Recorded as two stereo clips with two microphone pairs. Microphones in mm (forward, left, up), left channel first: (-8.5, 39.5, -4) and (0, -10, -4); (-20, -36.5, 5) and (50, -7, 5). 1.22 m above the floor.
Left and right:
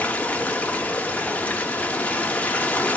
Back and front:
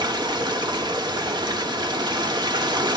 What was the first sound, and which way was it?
Running water, 40° left.